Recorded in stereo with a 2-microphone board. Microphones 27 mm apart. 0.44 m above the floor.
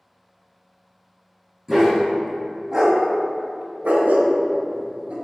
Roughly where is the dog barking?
Centre.